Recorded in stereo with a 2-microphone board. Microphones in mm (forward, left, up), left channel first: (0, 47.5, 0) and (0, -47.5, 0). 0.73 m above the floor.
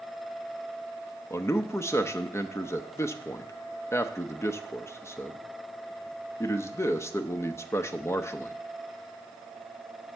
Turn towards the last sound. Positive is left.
turn(degrees=30)  # may be behind; listen again after turning